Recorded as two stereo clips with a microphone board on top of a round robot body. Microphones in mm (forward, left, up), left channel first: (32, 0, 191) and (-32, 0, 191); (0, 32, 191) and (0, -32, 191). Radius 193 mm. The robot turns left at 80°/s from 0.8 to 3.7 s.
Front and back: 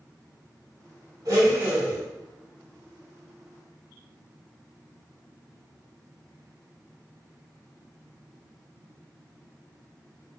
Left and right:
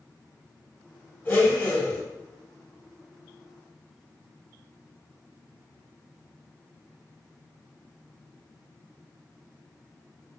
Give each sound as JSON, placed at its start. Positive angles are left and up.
{"t": 1.2, "sound": "a blender", "azimuth_deg": 155, "distance_m": 1.3}